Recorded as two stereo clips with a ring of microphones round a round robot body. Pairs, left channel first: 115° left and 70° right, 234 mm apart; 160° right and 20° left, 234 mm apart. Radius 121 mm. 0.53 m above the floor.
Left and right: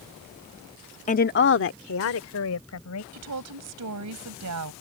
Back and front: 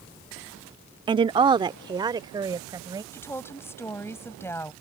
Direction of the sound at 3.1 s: 75° right.